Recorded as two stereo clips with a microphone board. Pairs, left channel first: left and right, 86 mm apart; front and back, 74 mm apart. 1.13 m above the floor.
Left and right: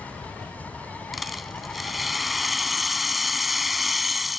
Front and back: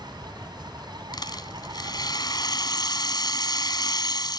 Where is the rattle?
Straight ahead.